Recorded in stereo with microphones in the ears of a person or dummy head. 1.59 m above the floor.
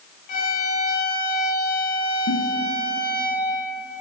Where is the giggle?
65° left (ahead or behind), 2.5 m.